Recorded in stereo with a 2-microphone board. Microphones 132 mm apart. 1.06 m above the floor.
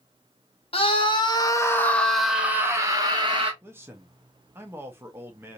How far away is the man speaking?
About 0.8 m.